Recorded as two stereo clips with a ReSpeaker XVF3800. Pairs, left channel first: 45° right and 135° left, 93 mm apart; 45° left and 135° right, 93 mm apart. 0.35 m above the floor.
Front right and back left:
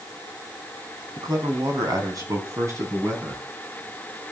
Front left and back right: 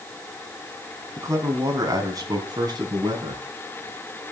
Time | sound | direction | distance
1.2 | a man speaking | 170° left | 3.5 m